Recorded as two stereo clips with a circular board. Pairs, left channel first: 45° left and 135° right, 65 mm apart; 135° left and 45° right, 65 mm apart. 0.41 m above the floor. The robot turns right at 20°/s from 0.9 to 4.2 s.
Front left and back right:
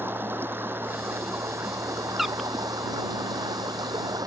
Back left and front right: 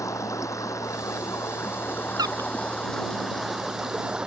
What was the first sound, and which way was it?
Running water, 170° left.